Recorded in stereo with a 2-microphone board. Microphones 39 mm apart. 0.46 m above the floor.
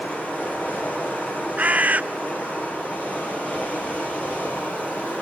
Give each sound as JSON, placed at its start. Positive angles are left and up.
{"t": 0.0, "sound": "running water", "side_deg": 35, "distance_m": 7.0}
{"t": 1.6, "sound": "a bird", "side_deg": -40, "distance_m": 0.6}